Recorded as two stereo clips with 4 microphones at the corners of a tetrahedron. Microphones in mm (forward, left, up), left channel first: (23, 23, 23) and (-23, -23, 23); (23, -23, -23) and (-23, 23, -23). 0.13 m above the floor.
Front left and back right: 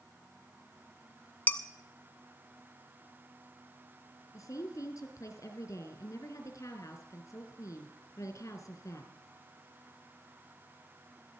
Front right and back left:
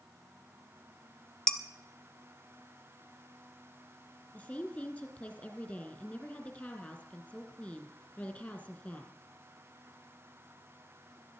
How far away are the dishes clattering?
About 0.8 m.